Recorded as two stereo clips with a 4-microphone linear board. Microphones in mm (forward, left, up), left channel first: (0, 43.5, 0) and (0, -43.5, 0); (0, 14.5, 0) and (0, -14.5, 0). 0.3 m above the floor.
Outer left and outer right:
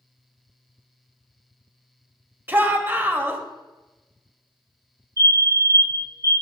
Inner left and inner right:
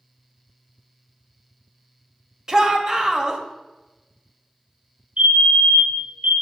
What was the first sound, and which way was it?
A shout, 20° right (ahead or behind).